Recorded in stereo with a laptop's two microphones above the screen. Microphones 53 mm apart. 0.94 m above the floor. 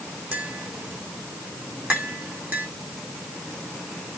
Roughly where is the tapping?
Right.